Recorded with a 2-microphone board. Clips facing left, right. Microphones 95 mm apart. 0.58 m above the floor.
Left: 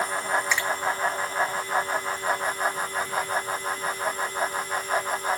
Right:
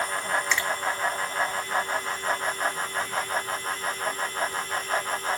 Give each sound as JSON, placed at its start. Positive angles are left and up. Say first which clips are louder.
{"t": 0.5, "sound": "a finger snap", "louder": "left 1 dB", "side_deg": 10, "distance_m": 7.0}